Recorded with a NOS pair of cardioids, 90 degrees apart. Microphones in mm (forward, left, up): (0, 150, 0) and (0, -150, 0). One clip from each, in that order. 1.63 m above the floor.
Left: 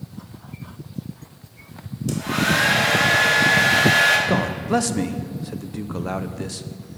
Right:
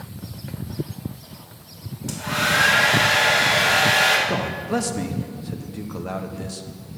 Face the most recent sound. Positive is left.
turn(degrees=20)